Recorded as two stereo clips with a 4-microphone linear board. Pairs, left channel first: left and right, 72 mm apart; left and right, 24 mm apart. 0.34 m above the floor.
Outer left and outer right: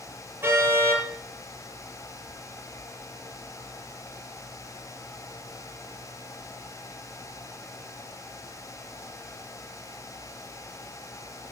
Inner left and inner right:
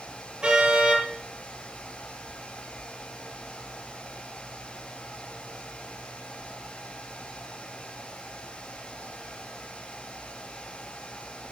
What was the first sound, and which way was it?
A car horn, 30° right (ahead or behind).